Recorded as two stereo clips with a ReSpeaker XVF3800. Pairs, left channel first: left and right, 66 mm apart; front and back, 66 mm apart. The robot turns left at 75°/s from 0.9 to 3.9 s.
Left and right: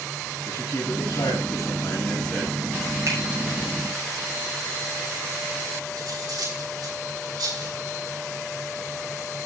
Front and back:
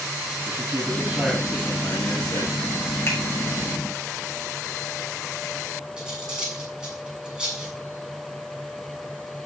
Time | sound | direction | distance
0.5 | a man speaking | 120° left | 8.5 m
3.1 | a finger snap | 50° right | 7 m
6.0 | cutlery clinking | 100° right | 7 m